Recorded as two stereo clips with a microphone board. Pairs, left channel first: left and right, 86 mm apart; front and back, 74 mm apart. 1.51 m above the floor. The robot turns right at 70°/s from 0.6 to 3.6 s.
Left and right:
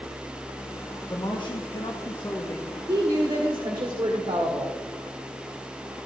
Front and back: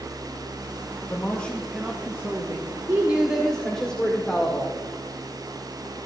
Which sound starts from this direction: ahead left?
A man speaking, at 1.1 s.